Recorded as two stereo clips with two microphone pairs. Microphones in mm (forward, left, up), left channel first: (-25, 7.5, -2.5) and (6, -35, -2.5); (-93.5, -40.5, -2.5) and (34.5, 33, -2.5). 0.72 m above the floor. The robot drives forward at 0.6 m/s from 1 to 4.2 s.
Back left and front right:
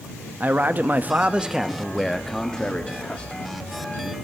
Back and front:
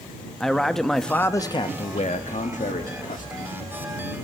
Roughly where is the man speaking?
Right.